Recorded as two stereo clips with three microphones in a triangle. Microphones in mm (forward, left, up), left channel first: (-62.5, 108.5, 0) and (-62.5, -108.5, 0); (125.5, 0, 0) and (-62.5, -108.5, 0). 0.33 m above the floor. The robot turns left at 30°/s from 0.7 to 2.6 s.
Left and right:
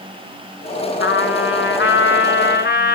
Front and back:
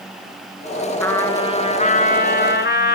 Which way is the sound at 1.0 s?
110° left.